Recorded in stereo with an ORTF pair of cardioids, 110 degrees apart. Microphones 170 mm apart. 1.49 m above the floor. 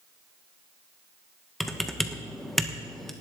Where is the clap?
I don't hear a clap.